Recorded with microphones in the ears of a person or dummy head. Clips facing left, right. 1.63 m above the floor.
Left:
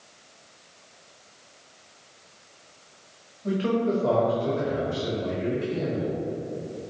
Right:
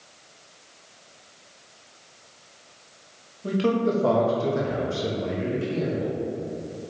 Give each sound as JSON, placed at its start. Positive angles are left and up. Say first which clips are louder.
{"t": 3.4, "sound": "a man speaking", "louder": "right 2 dB", "side_deg": -55, "distance_m": 1.1}